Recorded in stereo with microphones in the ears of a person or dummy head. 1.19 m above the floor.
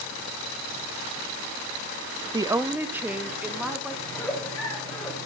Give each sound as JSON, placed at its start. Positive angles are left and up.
{"t": 2.3, "sound": "a woman speaking", "side_deg": -10, "distance_m": 0.8}
{"t": 4.0, "sound": "a giggle", "side_deg": 15, "distance_m": 5.5}